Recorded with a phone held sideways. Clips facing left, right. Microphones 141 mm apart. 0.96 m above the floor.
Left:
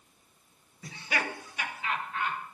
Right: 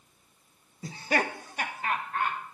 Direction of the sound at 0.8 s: 35° right (ahead or behind).